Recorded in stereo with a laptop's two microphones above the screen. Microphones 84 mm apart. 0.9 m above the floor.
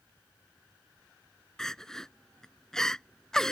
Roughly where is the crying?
Centre.